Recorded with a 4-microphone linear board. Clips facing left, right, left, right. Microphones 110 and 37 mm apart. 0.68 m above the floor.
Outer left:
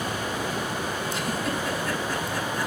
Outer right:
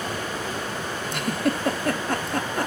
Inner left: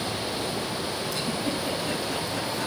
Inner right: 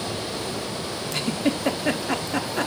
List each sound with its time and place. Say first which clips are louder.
1.1 s a giggle: outer right 7 dB, inner right 7 dB; 60° right (ahead or behind), 1.1 m